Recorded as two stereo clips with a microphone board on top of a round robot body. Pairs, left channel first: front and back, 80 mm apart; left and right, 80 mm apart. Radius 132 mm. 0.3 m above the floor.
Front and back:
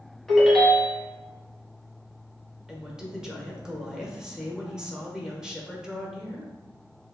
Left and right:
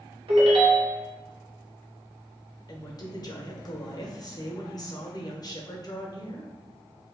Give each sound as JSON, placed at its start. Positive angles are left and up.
{"t": 0.3, "sound": "a ringtone", "azimuth_deg": -90, "distance_m": 1.2}
{"t": 2.7, "sound": "a woman speaking", "azimuth_deg": 100, "distance_m": 1.2}